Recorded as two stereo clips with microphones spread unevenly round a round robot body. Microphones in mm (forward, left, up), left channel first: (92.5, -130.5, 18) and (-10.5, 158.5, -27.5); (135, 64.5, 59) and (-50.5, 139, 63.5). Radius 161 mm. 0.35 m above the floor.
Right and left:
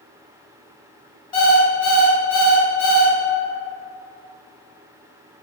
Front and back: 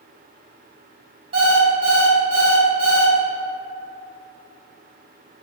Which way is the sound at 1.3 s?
150° right.